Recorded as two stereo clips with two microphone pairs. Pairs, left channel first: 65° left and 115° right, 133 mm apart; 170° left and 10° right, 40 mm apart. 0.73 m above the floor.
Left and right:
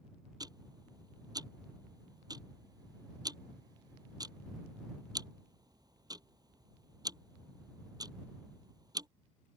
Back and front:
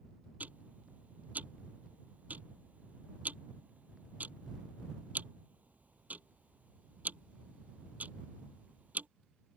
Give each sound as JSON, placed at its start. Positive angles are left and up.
{"t": 0.4, "sound": "ticking", "azimuth_deg": -55}